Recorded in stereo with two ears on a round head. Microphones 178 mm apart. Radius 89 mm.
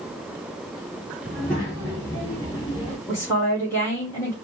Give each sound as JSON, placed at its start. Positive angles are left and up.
{"t": 1.2, "sound": "a child speaking", "side_deg": 5, "distance_m": 3.5}
{"t": 3.1, "sound": "a woman speaking", "side_deg": 10, "distance_m": 2.0}